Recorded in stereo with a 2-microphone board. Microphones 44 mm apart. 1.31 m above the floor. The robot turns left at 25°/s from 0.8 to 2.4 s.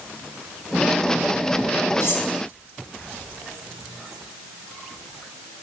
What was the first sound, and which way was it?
Cutlery clinking, 60° left (ahead or behind).